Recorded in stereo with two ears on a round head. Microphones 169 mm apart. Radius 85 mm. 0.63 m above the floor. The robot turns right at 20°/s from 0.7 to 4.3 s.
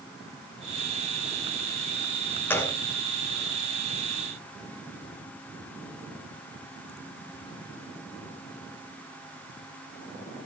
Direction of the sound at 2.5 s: 10° left (ahead or behind).